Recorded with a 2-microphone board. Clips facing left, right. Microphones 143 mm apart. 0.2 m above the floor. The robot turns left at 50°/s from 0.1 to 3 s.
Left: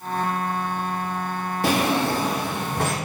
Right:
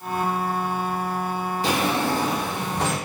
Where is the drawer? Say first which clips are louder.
Left 2 dB; 115° left, 1.3 m; by 3.0 s 50° left, 1.3 m.